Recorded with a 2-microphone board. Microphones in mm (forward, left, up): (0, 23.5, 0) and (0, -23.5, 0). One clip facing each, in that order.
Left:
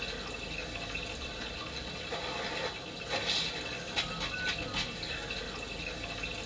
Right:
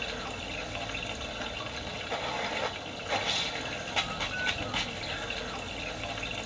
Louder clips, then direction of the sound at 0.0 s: Right 3 dB; 50° right (ahead or behind).